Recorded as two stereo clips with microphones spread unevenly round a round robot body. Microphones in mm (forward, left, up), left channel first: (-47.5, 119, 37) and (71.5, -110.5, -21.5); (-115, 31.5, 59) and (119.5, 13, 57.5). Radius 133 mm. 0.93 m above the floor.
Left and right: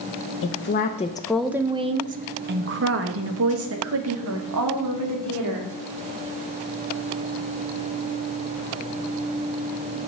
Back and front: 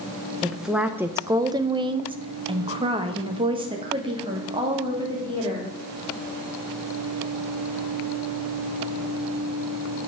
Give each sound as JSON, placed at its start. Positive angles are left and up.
{"t": 0.4, "sound": "a woman speaking", "azimuth_deg": 85, "distance_m": 0.8}